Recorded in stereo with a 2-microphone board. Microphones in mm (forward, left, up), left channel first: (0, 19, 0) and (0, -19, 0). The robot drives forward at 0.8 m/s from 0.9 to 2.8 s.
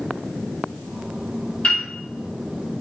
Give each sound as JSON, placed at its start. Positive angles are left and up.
{"t": 1.6, "sound": "a piano", "side_deg": 30, "distance_m": 2.5}